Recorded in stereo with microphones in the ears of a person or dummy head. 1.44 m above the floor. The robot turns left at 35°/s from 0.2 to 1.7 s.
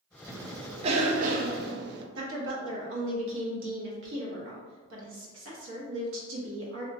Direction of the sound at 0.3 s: 15° right (ahead or behind).